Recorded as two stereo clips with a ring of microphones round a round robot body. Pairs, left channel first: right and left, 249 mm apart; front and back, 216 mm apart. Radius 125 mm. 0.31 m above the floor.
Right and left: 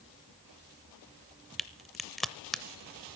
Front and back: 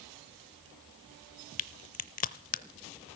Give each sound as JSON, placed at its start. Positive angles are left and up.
{"t": 1.6, "sound": "a crack", "azimuth_deg": 0, "distance_m": 0.6}